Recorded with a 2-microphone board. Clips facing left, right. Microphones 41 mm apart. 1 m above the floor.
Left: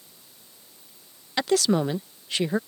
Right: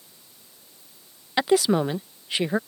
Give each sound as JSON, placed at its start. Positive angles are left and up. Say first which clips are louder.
{"t": 1.4, "sound": "a woman speaking", "louder": "right 2 dB", "side_deg": -15}